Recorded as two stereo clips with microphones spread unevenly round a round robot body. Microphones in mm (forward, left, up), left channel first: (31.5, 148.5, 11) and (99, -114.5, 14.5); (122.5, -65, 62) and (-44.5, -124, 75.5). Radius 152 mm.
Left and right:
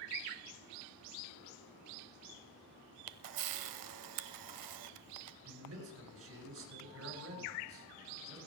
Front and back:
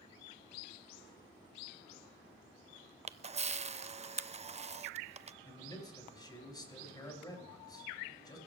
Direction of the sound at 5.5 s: 45° right.